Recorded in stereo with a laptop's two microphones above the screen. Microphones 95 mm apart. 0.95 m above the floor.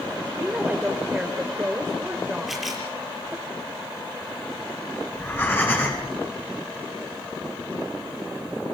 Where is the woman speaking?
15° right (ahead or behind), 3 m.